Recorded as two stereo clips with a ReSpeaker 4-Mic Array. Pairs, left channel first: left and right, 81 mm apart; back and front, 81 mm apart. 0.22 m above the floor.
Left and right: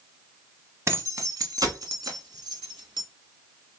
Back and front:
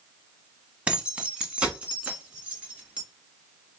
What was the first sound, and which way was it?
Keys jangling, 70° right.